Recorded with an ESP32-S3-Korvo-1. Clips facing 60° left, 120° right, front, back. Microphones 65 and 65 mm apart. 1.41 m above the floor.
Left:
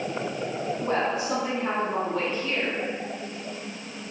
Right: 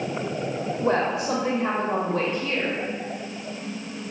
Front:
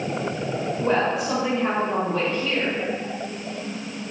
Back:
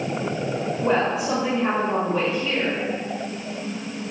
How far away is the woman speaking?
About 2.0 m.